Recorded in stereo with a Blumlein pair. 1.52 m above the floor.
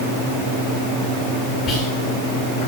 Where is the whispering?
25° left, 2.5 m.